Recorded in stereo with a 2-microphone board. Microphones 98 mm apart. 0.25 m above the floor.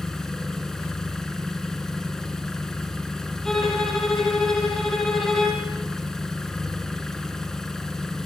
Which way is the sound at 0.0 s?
5° left (ahead or behind).